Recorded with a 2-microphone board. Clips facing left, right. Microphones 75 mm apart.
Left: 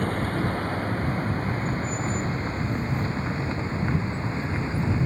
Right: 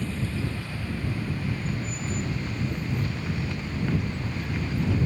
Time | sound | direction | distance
0.0 | a vehicle | 50° left (ahead or behind) | ?